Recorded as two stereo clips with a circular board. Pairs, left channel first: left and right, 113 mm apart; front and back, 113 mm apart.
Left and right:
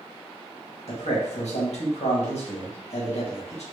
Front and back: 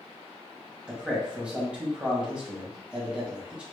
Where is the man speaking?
100° left, 1.6 m.